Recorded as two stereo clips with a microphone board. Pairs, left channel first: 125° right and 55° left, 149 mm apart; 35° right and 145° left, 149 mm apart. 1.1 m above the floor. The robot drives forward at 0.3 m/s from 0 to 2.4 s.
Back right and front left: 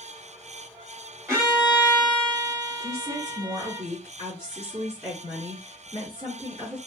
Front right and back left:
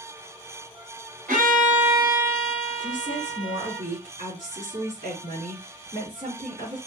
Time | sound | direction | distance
1.3 | a violin | 125° left | 3 m
2.8 | a woman speaking | 115° left | 3.5 m